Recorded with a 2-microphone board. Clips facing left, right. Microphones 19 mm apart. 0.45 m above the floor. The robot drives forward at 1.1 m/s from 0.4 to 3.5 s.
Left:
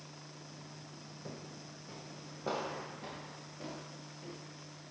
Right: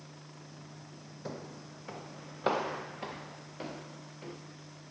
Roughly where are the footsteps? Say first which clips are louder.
Right 6 dB; right.